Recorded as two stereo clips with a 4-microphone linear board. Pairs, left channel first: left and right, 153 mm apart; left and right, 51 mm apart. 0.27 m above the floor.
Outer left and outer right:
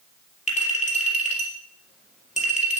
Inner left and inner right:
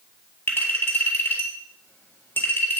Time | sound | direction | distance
0.5 | a clink | 50° left (ahead or behind) | 3.5 m